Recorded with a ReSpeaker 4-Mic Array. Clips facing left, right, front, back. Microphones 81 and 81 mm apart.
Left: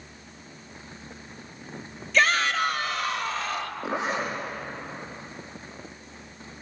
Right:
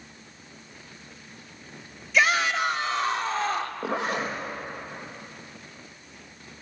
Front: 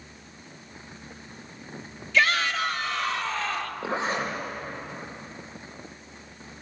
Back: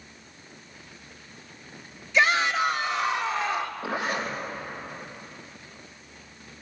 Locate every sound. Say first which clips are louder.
2.1 s a shout: even, back 2 dB; 155° right, 1.2 m; by 3.7 s 110° right, 1.6 m
3.8 s a zipper: left 1 dB, front 1 dB; 65° right, 4.5 m